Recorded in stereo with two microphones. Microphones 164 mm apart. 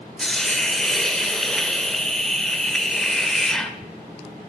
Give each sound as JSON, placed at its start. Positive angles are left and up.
{"t": 0.2, "sound": "a hiss", "side_deg": 5, "distance_m": 0.7}